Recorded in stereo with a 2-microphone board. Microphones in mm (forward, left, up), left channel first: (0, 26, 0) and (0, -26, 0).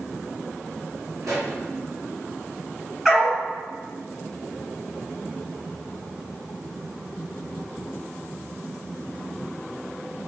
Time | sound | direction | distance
1.2 | a pop | 85° right | 1.8 m
3.0 | a dog barking | 10° right (ahead or behind) | 1.3 m